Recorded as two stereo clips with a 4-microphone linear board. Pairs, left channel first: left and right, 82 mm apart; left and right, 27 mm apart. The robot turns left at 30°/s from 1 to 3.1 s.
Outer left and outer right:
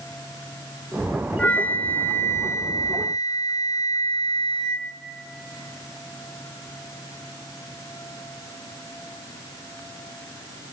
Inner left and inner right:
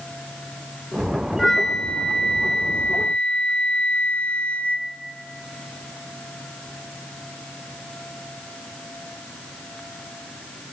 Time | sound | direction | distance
1.4 | a flute | 160° left | 1.4 m